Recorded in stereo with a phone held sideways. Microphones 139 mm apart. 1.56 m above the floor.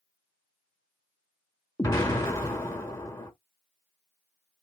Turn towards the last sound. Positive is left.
turn(degrees=20)  # may be behind; listen again after turning